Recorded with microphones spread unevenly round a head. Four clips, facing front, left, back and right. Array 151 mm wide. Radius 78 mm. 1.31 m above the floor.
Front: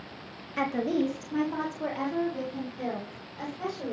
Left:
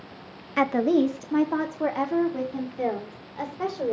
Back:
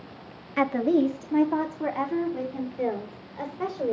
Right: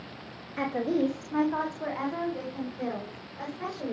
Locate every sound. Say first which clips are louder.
0.6 s a woman speaking: left 6 dB, back 5 dB; 95° left, 1.5 m; by 3.9 s 115° left, 6 m